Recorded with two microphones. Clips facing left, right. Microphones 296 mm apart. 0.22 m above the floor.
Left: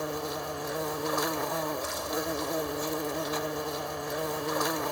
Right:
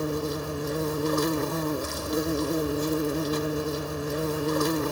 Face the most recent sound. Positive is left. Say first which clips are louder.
# right 6 dB
turn(degrees=-35)  # may be behind; listen again after turning